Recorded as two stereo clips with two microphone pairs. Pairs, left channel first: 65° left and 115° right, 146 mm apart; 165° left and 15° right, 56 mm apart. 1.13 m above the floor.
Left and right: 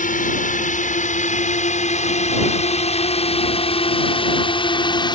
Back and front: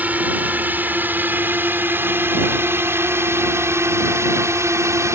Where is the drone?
45° left; by 5.2 s 5° left.